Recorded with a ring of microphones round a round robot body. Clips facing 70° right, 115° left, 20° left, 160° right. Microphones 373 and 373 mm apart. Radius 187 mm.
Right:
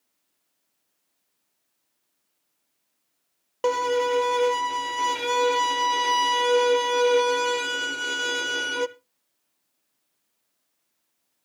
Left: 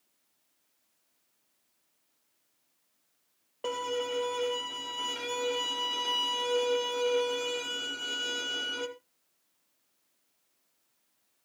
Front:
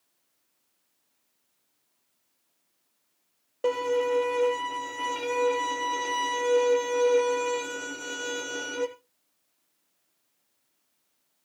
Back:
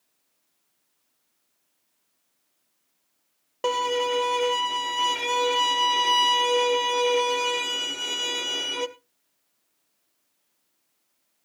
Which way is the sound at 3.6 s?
90° right.